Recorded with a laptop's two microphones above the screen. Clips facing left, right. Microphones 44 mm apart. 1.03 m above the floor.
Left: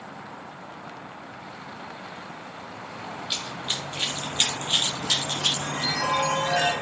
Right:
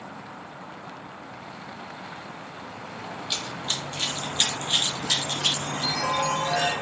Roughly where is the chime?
Left.